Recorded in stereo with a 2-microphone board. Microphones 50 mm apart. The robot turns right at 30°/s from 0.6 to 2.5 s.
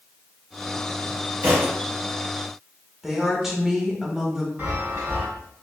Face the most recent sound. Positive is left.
turn(degrees=-45)  # may be behind; listen again after turning